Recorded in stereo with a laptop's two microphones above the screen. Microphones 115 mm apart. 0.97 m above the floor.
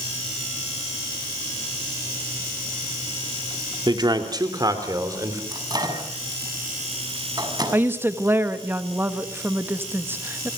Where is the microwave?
35° right (ahead or behind), 6.5 m.